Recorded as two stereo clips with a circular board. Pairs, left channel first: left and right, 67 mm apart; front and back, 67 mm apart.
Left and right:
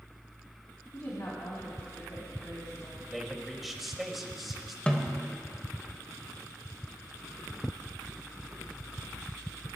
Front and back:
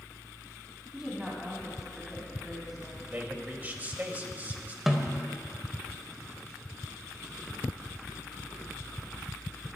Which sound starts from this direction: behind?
A man speaking, at 3.1 s.